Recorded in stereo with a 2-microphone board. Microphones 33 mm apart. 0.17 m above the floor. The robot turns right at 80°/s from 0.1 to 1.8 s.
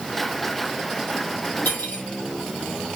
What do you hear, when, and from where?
1.6 s cutlery clinking: 80° left, 3 m; by 2.0 s 75° left (ahead or behind), 3 m